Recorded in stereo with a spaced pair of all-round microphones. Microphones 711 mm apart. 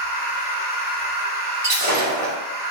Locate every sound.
0.0 s a machine running: 45° left (ahead or behind), 1.5 m
1.6 s breaking glass: 40° left (ahead or behind), 1.5 m